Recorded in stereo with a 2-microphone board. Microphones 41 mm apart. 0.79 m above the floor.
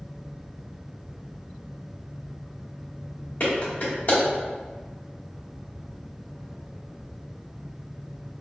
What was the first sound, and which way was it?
A clap, 55° left (ahead or behind).